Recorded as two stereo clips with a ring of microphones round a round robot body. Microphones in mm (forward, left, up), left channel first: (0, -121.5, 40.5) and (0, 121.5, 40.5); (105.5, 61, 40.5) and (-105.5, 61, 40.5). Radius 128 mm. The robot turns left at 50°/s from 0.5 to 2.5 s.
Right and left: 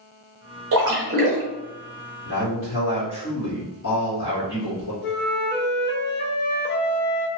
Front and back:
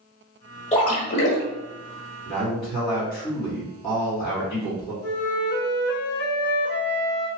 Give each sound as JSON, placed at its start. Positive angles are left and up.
{"t": 0.7, "sound": "a splash", "azimuth_deg": 60, "distance_m": 1.4}
{"t": 2.2, "sound": "a man speaking", "azimuth_deg": -55, "distance_m": 1.5}
{"t": 5.0, "sound": "a flute", "azimuth_deg": -45, "distance_m": 0.6}